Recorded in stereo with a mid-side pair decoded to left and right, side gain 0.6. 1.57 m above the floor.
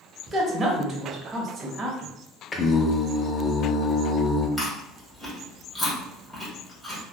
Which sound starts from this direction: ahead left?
Singing, at 2.5 s.